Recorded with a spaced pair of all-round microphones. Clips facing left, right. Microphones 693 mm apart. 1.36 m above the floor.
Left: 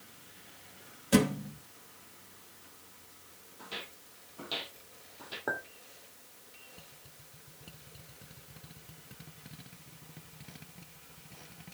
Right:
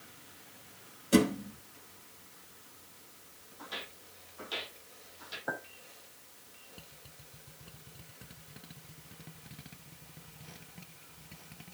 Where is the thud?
25° left (ahead or behind), 0.9 m.